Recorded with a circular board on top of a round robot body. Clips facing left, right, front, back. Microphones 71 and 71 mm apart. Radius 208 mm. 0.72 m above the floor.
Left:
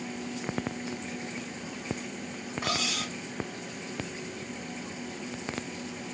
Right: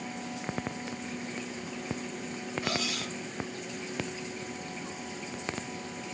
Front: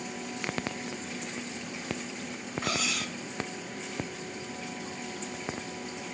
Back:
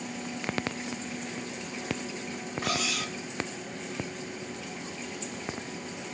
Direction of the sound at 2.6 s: 95° left.